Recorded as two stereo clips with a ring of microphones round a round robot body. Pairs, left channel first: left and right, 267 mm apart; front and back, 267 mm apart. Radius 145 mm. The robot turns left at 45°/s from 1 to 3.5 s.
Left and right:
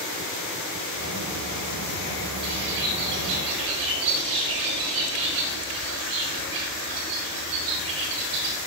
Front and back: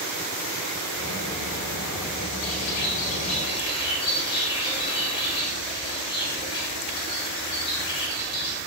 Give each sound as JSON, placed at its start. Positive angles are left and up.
{"t": 2.4, "sound": "a bird", "azimuth_deg": -25, "distance_m": 5.0}